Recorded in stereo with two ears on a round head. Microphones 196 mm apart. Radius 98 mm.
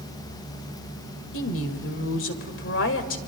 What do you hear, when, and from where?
1.3 s a woman speaking: 60° left (ahead or behind), 2.0 m